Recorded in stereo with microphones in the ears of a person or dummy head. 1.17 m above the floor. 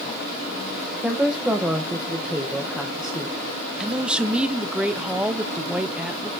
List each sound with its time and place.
1.0 s a woman speaking: 5° right (ahead or behind), 0.9 m
3.8 s a man speaking: 5° right (ahead or behind), 0.6 m